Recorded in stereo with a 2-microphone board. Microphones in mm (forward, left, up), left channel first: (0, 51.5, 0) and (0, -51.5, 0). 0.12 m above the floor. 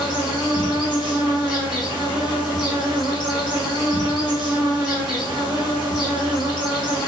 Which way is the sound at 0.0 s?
45° left (ahead or behind).